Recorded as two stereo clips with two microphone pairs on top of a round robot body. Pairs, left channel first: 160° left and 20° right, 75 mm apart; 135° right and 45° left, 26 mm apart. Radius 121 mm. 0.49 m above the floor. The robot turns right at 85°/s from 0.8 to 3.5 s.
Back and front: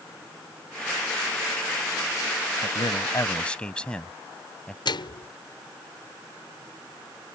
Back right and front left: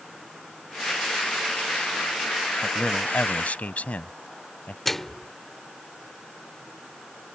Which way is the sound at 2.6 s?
160° left.